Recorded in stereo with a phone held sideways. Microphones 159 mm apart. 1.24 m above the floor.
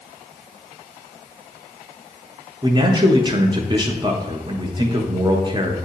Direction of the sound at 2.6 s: 30° right (ahead or behind).